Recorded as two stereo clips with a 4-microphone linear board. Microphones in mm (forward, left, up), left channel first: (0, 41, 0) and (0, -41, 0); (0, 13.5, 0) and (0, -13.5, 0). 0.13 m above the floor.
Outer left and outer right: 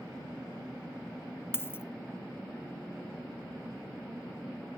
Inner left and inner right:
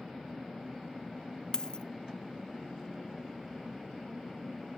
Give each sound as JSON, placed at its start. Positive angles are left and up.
{"t": 1.5, "sound": "a dropped coin", "side_deg": 30, "distance_m": 0.5}